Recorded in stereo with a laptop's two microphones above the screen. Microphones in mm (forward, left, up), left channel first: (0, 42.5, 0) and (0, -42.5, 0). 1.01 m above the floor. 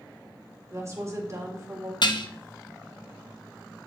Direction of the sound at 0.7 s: 35° right (ahead or behind).